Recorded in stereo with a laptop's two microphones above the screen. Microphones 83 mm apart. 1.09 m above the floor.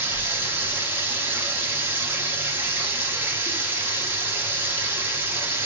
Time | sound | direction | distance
0.0 | running water | 25° right (ahead or behind) | 0.7 m